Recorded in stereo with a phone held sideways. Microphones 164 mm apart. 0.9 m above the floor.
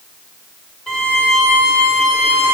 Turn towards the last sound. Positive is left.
turn(degrees=5)  # may be behind; listen again after turning